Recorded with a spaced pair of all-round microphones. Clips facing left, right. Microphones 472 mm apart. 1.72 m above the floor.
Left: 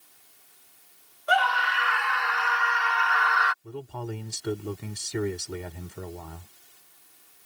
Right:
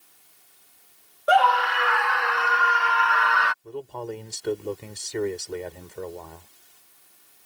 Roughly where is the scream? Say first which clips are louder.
Right 7 dB; right.